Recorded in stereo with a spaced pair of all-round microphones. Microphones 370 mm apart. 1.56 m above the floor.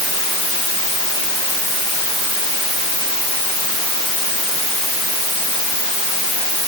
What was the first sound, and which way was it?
Only background noise.